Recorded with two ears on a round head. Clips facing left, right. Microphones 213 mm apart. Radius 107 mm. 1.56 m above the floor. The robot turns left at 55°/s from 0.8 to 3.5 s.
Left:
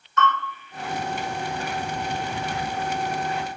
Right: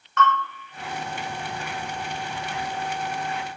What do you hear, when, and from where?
0.2 s a bell: 50° right (ahead or behind), 1.5 m